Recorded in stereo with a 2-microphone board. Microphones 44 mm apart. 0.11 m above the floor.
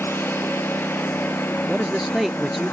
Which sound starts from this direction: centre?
A man speaking, at 1.7 s.